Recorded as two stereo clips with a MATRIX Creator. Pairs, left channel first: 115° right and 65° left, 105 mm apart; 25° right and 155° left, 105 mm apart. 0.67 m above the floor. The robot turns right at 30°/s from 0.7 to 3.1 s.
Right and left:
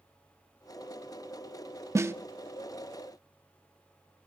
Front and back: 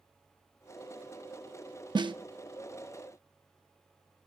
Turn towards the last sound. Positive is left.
turn(degrees=160)